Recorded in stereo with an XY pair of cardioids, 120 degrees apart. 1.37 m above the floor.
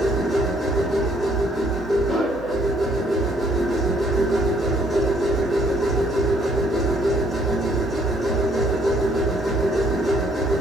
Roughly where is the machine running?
Ahead.